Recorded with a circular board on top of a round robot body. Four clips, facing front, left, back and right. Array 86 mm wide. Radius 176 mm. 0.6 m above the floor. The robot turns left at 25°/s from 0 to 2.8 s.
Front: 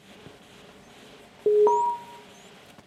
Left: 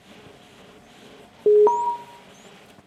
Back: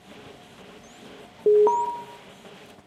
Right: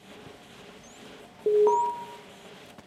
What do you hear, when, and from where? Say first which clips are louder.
1.5 s an alarm: left 6 dB, back 1 dB; 100° left, 0.7 m; by 1.9 s 90° left, 0.7 m